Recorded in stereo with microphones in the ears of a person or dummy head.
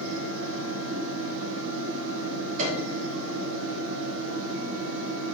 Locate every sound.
0.0 s a fan: 75° right (ahead or behind), 1.4 m
2.6 s a piano: 40° right (ahead or behind), 2.5 m